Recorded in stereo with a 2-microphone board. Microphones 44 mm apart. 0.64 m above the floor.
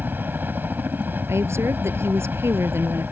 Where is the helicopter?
50° right (ahead or behind).